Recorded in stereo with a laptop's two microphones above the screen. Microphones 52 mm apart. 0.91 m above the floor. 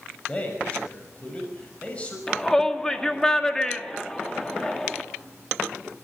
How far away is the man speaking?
About 6 m.